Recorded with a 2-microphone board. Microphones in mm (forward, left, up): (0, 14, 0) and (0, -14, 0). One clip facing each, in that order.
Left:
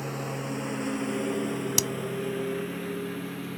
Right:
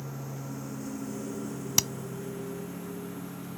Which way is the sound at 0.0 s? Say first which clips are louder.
Left 7 dB; 70° left (ahead or behind).